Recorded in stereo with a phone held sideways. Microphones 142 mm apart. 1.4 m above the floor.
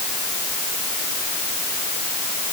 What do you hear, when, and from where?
Only background noise.